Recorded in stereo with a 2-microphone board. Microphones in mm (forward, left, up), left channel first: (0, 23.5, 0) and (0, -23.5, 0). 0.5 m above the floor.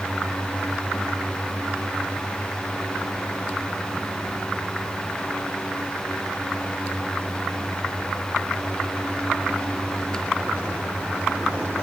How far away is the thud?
No thud in this recording.